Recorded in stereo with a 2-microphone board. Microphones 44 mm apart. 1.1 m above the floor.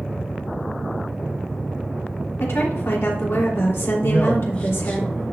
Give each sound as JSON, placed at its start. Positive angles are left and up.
{"t": 2.4, "sound": "a woman speaking", "side_deg": 70, "distance_m": 3.0}
{"t": 4.0, "sound": "a man speaking", "side_deg": 30, "distance_m": 2.5}